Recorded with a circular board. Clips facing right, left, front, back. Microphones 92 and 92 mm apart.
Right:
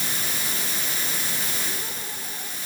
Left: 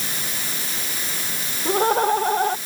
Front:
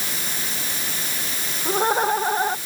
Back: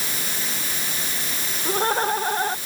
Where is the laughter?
80° left.